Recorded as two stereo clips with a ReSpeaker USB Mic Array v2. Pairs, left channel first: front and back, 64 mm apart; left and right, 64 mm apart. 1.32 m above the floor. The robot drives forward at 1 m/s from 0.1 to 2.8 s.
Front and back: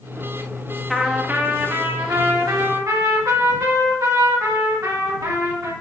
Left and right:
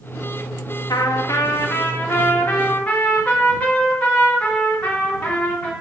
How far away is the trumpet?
About 0.7 m.